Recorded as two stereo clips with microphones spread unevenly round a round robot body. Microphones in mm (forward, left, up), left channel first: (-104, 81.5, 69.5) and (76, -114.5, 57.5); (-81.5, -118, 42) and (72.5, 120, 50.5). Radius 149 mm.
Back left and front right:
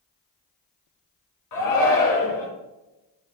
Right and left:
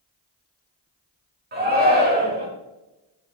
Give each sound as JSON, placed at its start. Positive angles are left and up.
{"t": 1.5, "sound": "a shout", "azimuth_deg": 115, "distance_m": 4.0}